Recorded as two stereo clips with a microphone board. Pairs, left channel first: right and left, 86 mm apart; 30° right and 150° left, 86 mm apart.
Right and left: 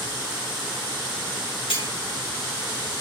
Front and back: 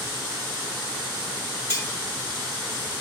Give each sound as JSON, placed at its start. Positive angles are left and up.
{"t": 1.7, "sound": "cutlery clinking", "azimuth_deg": -85, "distance_m": 2.5}